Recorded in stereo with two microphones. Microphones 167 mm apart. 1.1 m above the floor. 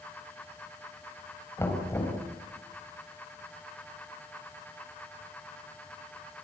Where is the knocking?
15° left (ahead or behind), 5 m.